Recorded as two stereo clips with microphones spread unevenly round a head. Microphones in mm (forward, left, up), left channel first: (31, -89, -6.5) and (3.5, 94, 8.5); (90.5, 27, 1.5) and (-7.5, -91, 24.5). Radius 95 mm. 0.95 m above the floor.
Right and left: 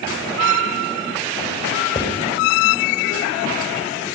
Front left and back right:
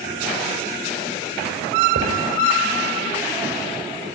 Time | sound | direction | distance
1.9 | writing | 145° right | 5 m